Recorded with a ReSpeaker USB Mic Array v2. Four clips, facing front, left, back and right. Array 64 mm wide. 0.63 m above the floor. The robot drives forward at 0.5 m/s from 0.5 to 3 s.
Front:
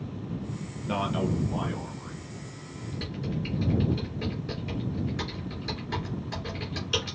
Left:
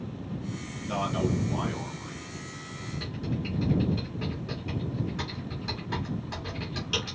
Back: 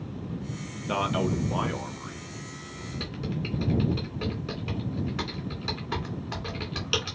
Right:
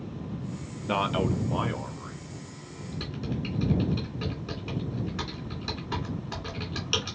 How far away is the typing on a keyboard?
About 2 m.